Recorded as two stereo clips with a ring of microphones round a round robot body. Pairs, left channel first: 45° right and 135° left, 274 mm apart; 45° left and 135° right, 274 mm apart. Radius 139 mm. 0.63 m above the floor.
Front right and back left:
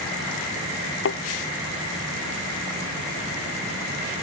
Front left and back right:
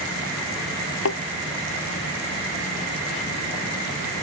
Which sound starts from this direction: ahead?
A thud, at 1.1 s.